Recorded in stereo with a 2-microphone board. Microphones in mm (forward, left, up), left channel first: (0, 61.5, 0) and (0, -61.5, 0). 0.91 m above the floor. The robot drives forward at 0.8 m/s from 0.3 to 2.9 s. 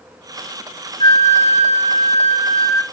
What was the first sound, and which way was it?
A flute, 50° left (ahead or behind).